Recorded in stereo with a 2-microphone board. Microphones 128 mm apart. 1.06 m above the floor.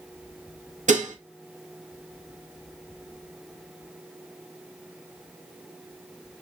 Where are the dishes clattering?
75° right (ahead or behind), 0.6 m.